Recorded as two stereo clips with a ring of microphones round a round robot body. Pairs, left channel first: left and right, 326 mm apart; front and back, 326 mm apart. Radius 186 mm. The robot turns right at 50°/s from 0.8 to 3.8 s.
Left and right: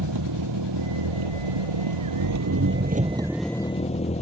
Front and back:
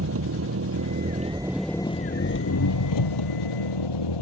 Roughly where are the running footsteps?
I don't hear running footsteps.